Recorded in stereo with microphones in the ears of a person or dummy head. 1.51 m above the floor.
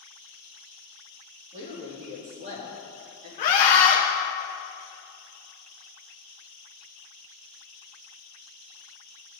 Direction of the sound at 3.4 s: 50° left (ahead or behind).